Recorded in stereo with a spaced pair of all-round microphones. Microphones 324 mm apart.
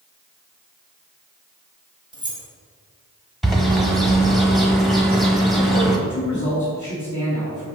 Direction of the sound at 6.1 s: 60° left (ahead or behind).